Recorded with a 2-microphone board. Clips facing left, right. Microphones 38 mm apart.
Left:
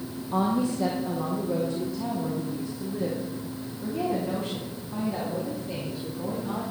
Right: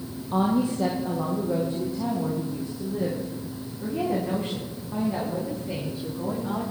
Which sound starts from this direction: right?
A woman speaking, at 0.3 s.